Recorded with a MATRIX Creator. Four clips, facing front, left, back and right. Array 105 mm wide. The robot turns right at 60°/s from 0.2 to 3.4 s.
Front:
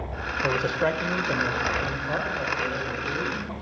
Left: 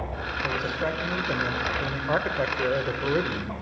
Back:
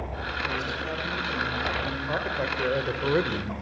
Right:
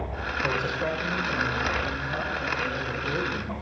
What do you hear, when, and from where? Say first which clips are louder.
0.4 s a man speaking: even, front 10 dB; 15° right, 2.5 m; by 3.5 s 165° left, 2.5 m